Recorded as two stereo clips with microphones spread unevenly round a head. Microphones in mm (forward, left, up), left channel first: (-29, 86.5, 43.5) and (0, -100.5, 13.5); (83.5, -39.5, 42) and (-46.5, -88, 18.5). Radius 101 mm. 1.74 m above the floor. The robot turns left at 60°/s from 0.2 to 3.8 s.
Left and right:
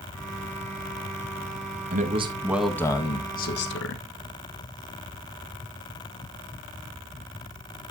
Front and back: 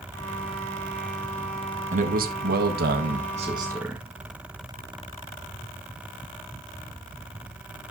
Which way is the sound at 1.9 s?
130° right.